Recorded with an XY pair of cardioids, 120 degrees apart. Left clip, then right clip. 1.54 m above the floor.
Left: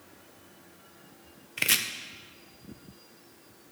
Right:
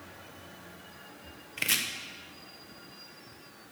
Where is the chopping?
20° left, 0.8 m.